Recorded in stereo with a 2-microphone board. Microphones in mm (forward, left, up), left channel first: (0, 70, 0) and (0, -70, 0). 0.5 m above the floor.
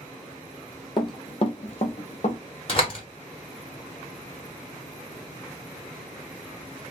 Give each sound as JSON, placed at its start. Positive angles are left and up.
{"t": 1.0, "sound": "running footsteps", "side_deg": 35, "distance_m": 0.8}
{"t": 2.7, "sound": "a door slam", "side_deg": 40, "distance_m": 0.9}